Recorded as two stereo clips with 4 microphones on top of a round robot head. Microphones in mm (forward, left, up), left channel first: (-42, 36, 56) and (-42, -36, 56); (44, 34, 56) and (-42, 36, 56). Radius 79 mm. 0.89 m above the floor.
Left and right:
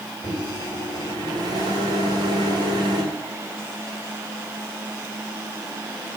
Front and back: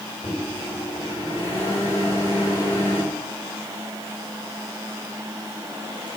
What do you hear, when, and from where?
0.2 s a microwave: 65° right, 3 m